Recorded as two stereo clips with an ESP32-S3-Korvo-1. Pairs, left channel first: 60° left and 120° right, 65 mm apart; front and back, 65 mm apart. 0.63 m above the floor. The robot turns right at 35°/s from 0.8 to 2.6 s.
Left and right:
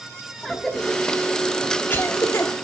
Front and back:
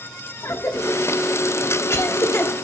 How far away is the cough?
About 1.3 m.